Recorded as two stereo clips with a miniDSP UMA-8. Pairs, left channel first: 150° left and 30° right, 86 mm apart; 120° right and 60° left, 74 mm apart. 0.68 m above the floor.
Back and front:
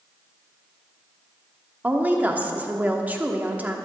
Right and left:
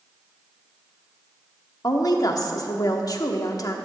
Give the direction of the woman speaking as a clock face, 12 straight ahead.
3 o'clock.